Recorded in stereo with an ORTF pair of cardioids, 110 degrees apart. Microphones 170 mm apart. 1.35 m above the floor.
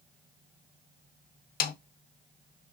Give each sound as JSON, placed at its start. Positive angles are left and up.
{"t": 1.6, "sound": "a snare drum", "azimuth_deg": 60, "distance_m": 0.6}